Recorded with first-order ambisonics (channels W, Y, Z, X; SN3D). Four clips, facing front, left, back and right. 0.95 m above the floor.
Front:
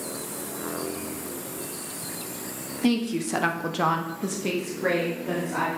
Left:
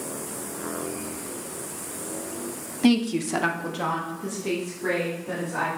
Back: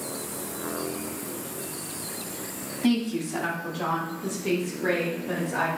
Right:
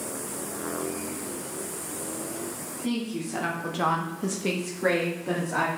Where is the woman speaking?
80° left, 1.0 m; by 5.7 s 60° right, 2.5 m.